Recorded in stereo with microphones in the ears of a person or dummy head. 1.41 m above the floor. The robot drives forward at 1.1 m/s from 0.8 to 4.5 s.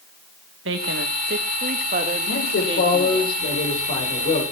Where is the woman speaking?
80° right, 1.9 m; by 3.3 s 30° right (ahead or behind), 3.5 m.